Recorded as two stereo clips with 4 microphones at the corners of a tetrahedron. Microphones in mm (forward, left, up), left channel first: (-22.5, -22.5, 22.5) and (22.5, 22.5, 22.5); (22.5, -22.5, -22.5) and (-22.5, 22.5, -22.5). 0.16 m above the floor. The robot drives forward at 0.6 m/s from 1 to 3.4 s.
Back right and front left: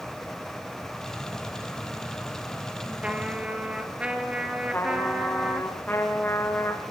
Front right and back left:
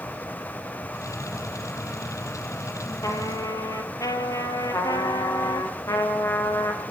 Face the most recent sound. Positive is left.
turn(degrees=-80)